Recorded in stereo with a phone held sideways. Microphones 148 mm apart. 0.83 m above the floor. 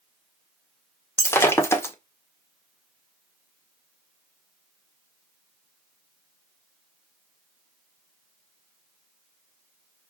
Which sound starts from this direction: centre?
Breaking glass, at 1.2 s.